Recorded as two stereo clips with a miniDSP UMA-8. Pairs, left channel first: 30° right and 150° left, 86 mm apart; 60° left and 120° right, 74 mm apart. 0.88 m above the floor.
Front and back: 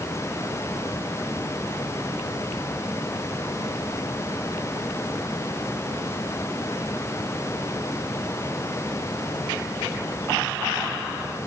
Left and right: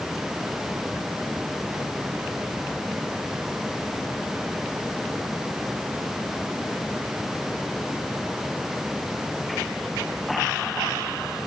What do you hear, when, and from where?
Only background noise.